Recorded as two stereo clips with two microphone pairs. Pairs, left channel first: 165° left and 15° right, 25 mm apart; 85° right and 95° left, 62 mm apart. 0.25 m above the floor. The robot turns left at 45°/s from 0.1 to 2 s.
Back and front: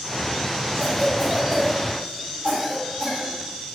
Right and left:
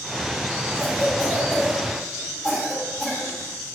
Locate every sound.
0.8 s a cough: 125° right, 1.5 m; by 3.3 s straight behind, 1.5 m